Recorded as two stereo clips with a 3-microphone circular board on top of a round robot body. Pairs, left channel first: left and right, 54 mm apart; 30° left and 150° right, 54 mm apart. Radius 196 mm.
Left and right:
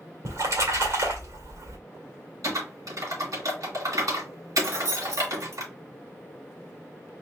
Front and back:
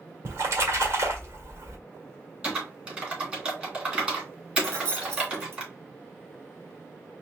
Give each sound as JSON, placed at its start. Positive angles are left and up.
{"t": 0.2, "sound": "a splash", "azimuth_deg": -110, "distance_m": 1.9}
{"t": 2.4, "sound": "typing on a keyboard", "azimuth_deg": -80, "distance_m": 3.0}
{"t": 4.6, "sound": "keys jangling", "azimuth_deg": -110, "distance_m": 1.6}